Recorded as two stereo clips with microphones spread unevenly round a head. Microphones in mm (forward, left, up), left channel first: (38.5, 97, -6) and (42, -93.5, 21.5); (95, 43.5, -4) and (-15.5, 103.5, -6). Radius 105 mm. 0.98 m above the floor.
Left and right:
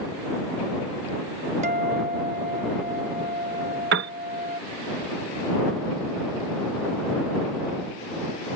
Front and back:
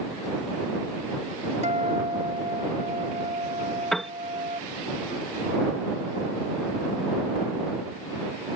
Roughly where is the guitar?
Behind right.